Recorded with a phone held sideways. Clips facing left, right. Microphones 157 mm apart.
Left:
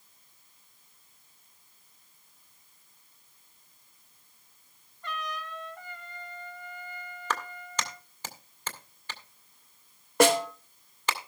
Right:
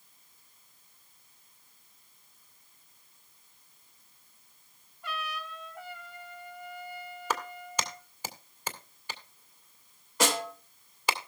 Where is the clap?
10° right (ahead or behind), 2 m.